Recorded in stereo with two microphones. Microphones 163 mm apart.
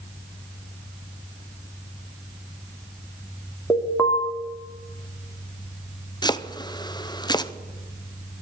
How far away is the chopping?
About 0.7 m.